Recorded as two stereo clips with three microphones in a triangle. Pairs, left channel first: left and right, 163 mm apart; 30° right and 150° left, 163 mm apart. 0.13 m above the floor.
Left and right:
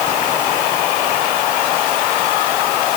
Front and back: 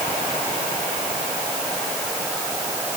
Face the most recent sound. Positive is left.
No sound to turn to.